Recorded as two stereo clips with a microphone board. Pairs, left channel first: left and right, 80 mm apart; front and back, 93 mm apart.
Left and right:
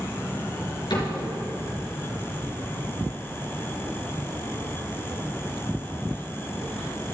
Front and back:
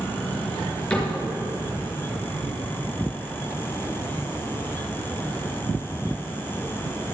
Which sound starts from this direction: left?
A cupboard door, at 0.9 s.